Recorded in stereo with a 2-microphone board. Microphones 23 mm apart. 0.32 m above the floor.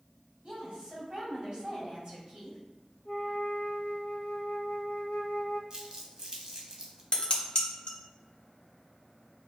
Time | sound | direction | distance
0.4 | a woman speaking | 40° right (ahead or behind) | 2.0 m
3.0 | a flute | 75° left (ahead or behind) | 1.1 m
5.7 | crumpling | 25° right (ahead or behind) | 0.8 m
7.1 | dishes clattering | 40° left (ahead or behind) | 0.9 m